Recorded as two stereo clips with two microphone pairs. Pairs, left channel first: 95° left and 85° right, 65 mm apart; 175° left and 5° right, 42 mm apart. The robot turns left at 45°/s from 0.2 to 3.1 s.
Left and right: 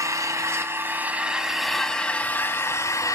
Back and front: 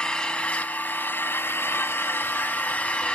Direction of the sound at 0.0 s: 115° right.